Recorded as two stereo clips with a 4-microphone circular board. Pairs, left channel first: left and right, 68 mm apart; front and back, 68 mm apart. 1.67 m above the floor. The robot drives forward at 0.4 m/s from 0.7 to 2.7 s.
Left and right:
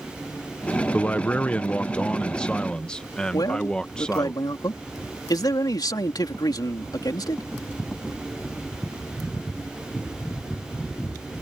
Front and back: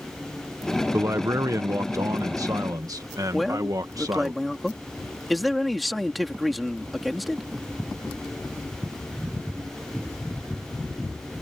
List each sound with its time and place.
0.9 s a man speaking: 150° left; by 4.3 s 165° left
3.3 s a man speaking: 90° left